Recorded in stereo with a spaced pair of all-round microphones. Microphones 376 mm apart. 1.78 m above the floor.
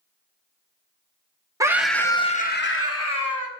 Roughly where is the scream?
Centre.